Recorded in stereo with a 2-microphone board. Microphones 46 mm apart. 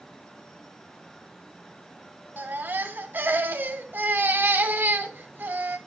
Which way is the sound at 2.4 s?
45° right (ahead or behind).